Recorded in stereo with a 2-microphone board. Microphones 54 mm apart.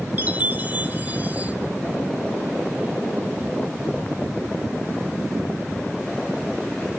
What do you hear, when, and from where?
0.2 s a chime: 30° right (ahead or behind), 1.0 m